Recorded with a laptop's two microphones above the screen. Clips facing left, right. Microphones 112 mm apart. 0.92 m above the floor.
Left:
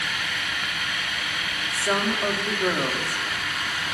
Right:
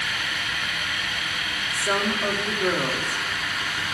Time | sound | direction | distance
1.7 | a woman speaking | 10° left (ahead or behind) | 2 m